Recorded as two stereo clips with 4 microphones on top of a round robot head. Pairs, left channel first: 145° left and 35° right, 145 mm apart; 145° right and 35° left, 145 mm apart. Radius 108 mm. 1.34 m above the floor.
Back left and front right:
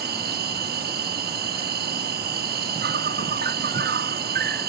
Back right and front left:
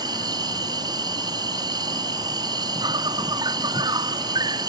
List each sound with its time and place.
0.0 s an insect: 30° right